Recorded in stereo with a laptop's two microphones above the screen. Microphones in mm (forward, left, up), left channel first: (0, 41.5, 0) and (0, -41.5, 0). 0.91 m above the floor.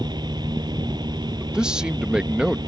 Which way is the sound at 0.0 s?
60° right (ahead or behind).